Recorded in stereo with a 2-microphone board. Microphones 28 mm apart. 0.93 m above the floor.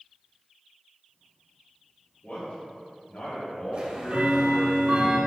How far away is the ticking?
About 1.7 m.